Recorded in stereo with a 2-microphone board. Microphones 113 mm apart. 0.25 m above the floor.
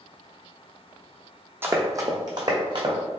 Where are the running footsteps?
20° right (ahead or behind), 0.7 m; by 3.0 s 45° right (ahead or behind), 1.3 m.